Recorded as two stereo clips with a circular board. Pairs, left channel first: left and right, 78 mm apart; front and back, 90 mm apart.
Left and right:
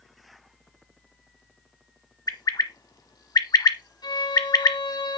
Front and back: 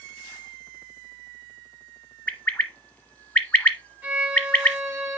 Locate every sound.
2.3 s a bird: 70° left, 1.0 m
4.0 s a violin: 105° left, 5 m